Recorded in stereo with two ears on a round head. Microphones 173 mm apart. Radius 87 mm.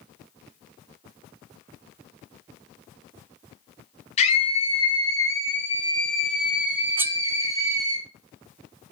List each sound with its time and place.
4.2 s a scream: 35° left (ahead or behind), 3 m; by 8.0 s 20° right (ahead or behind), 4 m
7.0 s cutlery clinking: 10° right (ahead or behind), 0.7 m